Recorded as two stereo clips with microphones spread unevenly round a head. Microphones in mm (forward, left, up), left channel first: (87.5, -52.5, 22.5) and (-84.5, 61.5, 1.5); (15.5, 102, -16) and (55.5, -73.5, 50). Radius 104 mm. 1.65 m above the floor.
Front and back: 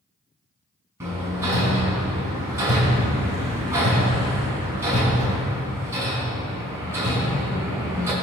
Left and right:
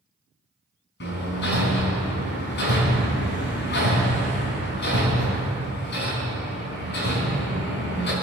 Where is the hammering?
65° left, 4 m.